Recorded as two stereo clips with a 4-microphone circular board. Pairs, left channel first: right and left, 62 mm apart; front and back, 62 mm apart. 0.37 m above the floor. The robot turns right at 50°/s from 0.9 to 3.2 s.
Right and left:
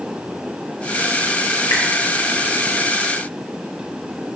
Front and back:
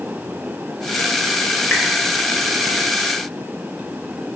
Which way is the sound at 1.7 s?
70° right.